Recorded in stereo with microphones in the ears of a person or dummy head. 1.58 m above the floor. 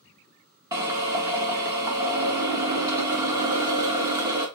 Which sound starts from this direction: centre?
A drill, at 0.7 s.